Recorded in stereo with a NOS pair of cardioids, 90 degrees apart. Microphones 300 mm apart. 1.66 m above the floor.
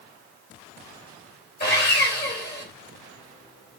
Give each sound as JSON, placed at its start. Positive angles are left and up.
{"t": 1.6, "sound": "sawing", "azimuth_deg": 35, "distance_m": 2.5}